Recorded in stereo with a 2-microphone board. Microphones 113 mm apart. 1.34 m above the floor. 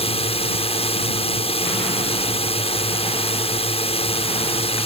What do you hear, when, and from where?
0.0 s a drone: 60° left (ahead or behind)